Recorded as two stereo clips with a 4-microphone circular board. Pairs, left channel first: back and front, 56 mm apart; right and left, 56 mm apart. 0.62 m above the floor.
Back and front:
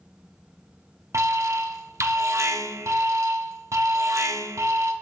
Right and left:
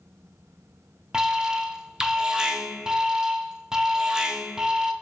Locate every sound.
1.1 s an alarm: 15° left, 0.6 m